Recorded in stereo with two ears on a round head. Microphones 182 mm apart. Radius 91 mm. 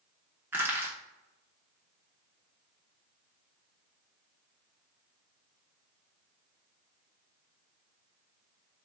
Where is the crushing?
10° right (ahead or behind), 0.9 m.